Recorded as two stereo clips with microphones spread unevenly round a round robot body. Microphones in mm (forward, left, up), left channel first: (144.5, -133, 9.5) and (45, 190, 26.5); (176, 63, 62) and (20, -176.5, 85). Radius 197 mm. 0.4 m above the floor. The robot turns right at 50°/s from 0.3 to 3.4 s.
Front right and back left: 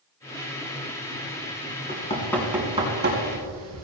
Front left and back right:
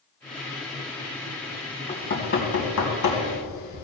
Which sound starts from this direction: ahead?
Knocking, at 1.9 s.